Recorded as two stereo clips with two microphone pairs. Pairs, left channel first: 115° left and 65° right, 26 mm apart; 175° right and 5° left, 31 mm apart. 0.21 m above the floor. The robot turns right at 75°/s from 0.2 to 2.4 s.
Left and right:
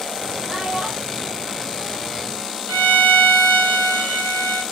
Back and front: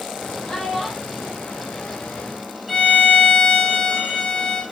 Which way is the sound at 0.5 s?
115° right.